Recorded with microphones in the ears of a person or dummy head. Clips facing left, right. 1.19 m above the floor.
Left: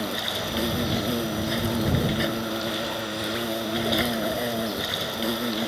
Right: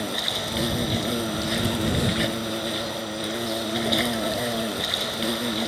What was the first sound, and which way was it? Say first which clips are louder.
An insect: even; 5° right (ahead or behind).